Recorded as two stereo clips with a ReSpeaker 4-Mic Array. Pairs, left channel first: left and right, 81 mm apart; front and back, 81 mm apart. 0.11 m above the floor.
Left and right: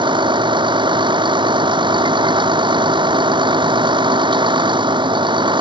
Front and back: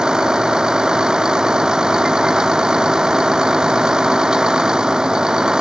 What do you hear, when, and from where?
0.0 s a vehicle: 100° right